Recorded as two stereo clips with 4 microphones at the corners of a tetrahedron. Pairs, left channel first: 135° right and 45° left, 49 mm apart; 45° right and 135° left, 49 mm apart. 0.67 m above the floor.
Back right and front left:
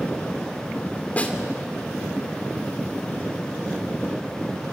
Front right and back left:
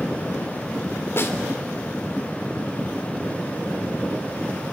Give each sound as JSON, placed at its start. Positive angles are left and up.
{"t": 1.2, "sound": "a snare drum", "azimuth_deg": -75, "distance_m": 2.5}